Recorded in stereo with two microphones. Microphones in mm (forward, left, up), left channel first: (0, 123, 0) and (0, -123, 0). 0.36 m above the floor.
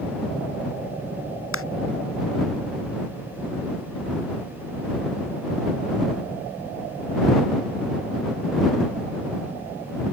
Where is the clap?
60° left (ahead or behind).